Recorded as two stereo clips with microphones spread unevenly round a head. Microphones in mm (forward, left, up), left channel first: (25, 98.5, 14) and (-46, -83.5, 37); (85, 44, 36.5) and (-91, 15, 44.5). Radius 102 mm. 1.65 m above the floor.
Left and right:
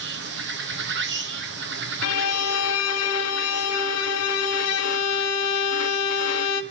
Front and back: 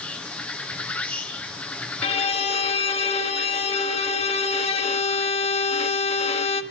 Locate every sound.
0.0 s an insect: 70° right, 1.9 m
2.0 s a violin: 70° left, 1.4 m